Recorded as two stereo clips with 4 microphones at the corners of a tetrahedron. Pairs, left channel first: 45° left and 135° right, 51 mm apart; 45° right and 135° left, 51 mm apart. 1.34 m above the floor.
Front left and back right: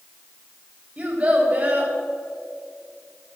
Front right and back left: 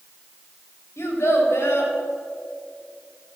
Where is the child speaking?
70° right, 3 m.